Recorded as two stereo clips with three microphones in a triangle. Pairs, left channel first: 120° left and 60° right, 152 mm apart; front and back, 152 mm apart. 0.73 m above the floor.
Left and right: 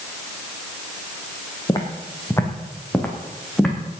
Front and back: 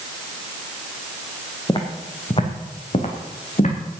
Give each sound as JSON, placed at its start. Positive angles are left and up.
{"t": 1.7, "sound": "footsteps", "azimuth_deg": 60, "distance_m": 2.5}